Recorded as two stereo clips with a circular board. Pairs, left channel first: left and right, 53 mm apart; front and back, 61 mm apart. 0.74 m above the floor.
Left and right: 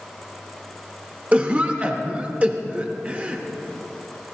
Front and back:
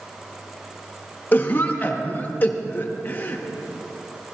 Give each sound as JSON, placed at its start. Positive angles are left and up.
{"t": 1.3, "sound": "a cough", "azimuth_deg": -40, "distance_m": 0.5}